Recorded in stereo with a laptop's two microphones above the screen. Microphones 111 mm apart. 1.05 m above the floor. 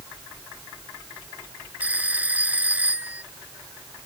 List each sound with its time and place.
1.8 s a phone ringing: 15° right (ahead or behind)